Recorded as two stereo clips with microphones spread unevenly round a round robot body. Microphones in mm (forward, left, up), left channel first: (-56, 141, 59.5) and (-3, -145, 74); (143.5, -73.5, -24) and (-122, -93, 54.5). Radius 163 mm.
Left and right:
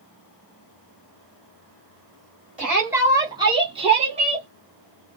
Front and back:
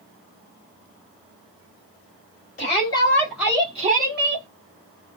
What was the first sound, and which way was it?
A shout, 5° left.